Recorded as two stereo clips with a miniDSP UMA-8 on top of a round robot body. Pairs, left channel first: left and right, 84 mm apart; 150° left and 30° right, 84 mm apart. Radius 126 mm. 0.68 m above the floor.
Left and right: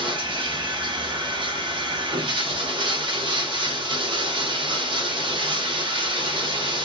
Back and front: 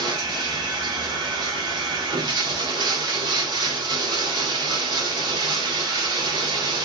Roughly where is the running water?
Right.